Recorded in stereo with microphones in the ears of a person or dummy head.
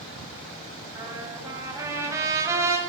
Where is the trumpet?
15° right (ahead or behind), 9 m.